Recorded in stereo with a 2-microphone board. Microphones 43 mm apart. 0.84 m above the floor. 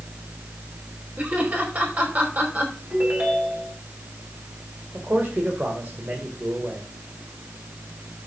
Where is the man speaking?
55° right (ahead or behind), 2.5 m.